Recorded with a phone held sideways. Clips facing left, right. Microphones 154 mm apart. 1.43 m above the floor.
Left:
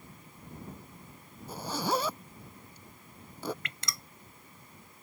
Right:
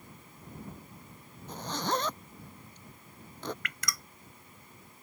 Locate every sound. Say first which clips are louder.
1.5 s a zipper: left 1 dB; 10° left (ahead or behind)
3.6 s dripping: right 2 dB; 25° left (ahead or behind)